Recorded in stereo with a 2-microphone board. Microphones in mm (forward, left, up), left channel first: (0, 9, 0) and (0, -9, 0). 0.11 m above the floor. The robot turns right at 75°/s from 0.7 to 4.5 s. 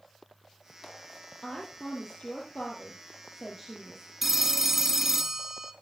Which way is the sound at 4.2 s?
15° right (ahead or behind).